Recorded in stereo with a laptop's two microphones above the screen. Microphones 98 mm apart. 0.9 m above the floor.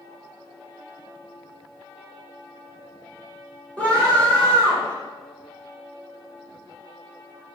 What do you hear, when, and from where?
3.8 s a scream: 10° left (ahead or behind), 0.9 m